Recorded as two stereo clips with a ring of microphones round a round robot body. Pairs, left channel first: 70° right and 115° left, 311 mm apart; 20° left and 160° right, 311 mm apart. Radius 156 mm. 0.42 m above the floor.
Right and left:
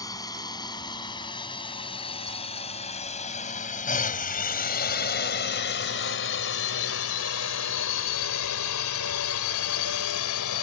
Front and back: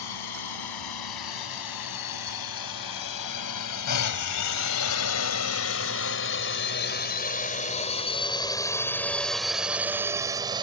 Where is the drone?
10° left; by 10.6 s 85° right.